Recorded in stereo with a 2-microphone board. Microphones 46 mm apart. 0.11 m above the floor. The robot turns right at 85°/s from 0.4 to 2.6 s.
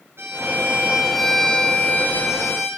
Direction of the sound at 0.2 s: 70° right.